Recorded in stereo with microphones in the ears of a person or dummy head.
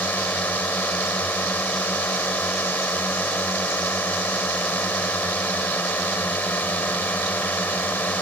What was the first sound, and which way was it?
A drone, 5° left (ahead or behind).